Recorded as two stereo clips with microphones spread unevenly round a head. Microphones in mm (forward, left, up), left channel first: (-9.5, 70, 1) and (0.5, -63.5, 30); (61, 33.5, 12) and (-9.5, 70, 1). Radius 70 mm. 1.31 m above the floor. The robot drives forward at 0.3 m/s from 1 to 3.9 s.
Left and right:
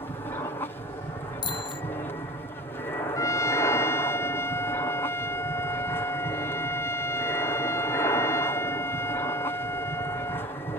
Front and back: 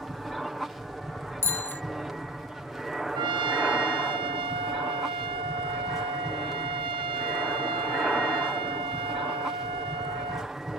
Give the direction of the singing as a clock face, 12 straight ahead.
I don't hear singing.